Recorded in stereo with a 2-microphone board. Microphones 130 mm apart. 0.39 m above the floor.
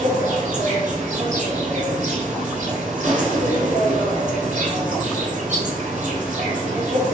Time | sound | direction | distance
0.0 | an insect | 70° right (ahead or behind) | 0.7 m